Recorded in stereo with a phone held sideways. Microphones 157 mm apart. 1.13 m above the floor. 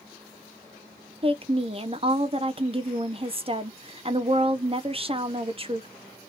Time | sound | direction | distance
1.2 | a woman speaking | 35° right (ahead or behind) | 0.5 m